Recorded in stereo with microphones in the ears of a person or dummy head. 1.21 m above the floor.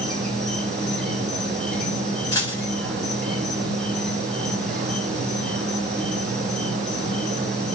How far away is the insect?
About 1.7 m.